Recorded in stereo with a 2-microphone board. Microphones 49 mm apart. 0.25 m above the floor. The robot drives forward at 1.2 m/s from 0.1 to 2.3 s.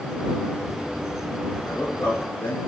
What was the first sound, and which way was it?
A man speaking, 45° left (ahead or behind).